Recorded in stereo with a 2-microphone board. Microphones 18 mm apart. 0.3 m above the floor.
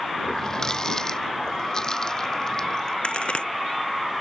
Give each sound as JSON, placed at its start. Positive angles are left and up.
{"t": 0.2, "sound": "a running tap", "side_deg": 30}
{"t": 3.0, "sound": "a crack", "side_deg": 65}